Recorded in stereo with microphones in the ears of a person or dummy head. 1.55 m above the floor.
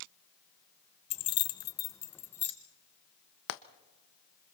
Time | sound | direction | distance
1.1 | keys jangling | 25° left (ahead or behind) | 0.5 m
3.5 | frying | 65° left (ahead or behind) | 0.9 m